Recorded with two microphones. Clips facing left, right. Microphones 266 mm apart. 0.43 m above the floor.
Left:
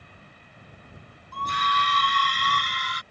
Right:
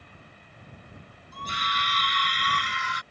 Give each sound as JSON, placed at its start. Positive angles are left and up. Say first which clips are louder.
{"t": 1.3, "sound": "a scream", "louder": "left 5 dB", "side_deg": 75}